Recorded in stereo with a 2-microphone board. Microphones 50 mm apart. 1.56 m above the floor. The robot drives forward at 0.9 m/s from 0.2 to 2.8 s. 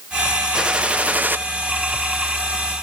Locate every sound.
0.5 s a gunshot: 20° right (ahead or behind), 1.3 m; by 1.4 s 40° right (ahead or behind), 0.7 m